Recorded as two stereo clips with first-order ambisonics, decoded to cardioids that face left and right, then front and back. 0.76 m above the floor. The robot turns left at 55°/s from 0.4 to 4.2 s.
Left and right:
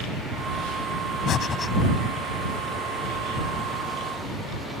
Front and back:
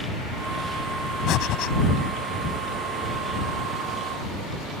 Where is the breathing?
40° left; by 1.7 s 15° left.